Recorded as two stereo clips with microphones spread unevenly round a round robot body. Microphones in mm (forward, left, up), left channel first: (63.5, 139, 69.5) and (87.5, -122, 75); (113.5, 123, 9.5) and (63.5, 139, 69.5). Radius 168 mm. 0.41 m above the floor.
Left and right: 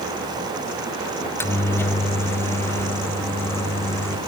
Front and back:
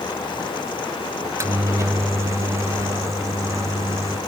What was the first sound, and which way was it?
A microwave, 35° left.